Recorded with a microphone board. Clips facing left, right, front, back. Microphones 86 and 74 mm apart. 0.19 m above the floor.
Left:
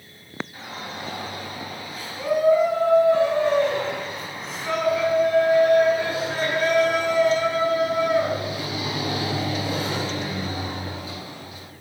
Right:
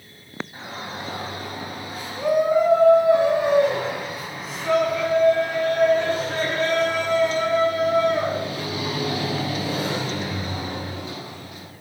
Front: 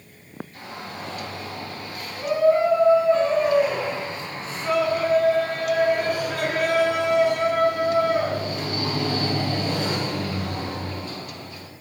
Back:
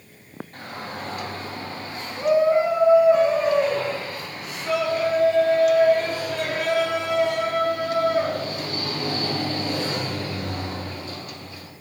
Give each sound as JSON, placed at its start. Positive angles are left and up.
{"t": 0.5, "sound": "a shout", "azimuth_deg": -155, "distance_m": 2.5}